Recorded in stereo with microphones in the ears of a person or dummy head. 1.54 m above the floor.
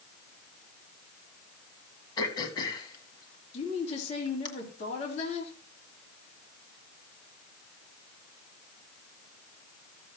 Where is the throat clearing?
25° left (ahead or behind), 1.7 m.